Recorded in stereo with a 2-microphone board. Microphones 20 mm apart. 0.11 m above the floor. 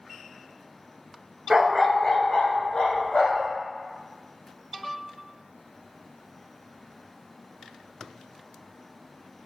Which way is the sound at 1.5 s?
30° right (ahead or behind).